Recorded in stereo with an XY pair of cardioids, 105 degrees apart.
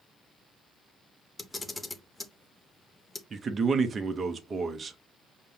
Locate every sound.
1.4 s a camera shutter: 15° left, 0.9 m
3.3 s a man speaking: 40° right, 0.8 m